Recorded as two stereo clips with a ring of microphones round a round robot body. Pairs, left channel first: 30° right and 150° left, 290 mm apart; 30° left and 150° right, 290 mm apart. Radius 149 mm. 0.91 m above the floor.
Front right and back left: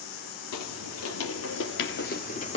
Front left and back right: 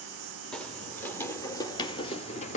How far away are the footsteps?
About 1.5 m.